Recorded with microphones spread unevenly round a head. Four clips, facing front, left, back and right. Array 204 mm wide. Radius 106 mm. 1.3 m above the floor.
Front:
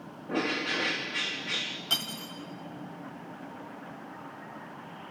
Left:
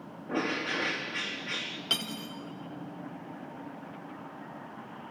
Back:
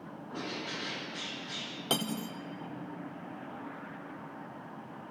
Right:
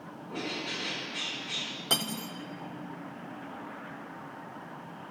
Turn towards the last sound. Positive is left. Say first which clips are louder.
# right 5 dB, back 8 dB
turn(degrees=-155)